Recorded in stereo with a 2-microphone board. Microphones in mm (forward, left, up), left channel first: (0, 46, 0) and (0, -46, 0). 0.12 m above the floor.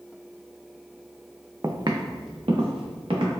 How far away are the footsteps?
About 0.5 m.